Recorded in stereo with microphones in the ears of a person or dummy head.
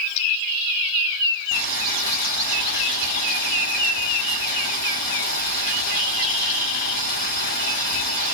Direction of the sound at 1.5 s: 55° left (ahead or behind).